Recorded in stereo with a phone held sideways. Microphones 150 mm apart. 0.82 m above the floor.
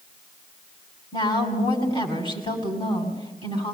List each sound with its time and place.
1.1 s a woman speaking: 30° left (ahead or behind), 7 m